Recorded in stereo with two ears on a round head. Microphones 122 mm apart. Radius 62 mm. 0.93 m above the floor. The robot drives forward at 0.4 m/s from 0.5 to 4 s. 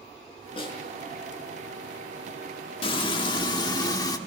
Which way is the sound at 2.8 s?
40° left (ahead or behind).